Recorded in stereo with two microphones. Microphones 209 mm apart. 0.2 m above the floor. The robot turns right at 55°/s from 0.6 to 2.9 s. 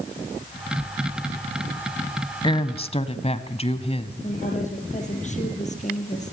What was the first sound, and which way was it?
A woman speaking, 25° left (ahead or behind).